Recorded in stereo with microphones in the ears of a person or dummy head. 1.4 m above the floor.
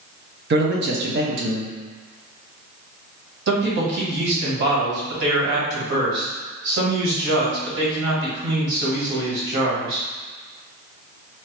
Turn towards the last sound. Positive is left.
turn(degrees=-70)  # may be behind; listen again after turning